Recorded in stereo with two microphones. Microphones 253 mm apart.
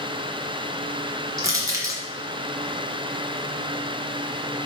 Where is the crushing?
10° right (ahead or behind), 1.8 m.